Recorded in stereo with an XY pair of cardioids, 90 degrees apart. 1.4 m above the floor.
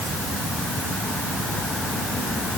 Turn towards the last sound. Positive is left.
No sound to turn to.